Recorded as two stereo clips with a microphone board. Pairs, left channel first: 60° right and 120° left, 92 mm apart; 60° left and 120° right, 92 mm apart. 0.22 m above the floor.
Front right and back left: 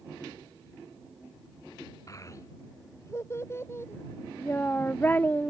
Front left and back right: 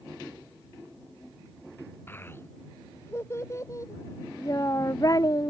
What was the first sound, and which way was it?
A child speaking, 5° right.